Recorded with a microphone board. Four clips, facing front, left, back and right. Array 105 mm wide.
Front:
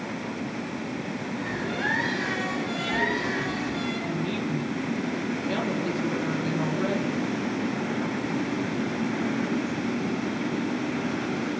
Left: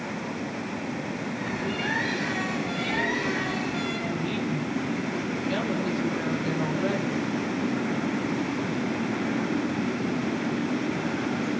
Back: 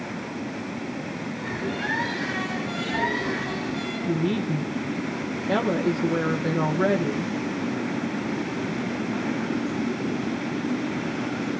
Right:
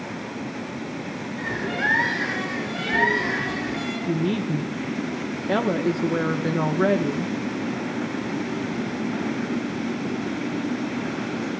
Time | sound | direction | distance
1.4 | a bird | 85° right | 9.5 m
4.1 | a woman speaking | 125° right | 1.9 m